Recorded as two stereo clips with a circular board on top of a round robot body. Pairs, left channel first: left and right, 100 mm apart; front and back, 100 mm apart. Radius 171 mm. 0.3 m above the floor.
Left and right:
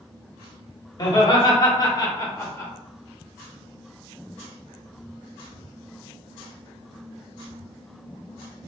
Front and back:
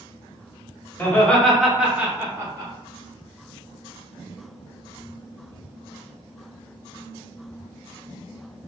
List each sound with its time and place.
1.0 s laughter: 65° left, 1.1 m; by 2.7 s 145° left, 1.2 m